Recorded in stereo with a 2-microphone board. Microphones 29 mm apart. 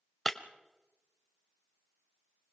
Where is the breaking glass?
5° left (ahead or behind), 1.1 m.